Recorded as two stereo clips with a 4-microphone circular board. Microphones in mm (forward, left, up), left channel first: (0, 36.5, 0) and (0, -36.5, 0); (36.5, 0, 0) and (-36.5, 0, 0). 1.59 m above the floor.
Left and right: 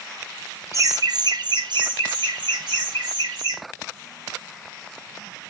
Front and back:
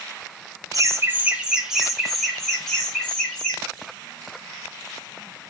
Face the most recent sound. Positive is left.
turn(degrees=-80)